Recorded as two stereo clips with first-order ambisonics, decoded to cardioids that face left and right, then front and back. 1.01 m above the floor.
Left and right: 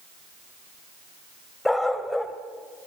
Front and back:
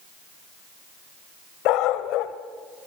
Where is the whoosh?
I don't hear a whoosh.